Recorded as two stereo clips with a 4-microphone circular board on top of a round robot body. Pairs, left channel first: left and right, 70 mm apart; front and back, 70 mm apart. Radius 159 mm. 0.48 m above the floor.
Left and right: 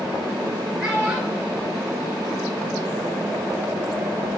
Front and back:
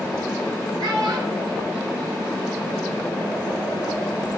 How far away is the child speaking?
About 8 m.